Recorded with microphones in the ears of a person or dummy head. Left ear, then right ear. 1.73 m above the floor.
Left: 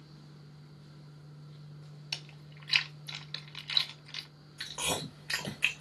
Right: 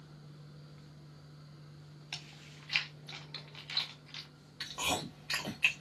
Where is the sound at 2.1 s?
15° left (ahead or behind), 0.6 m.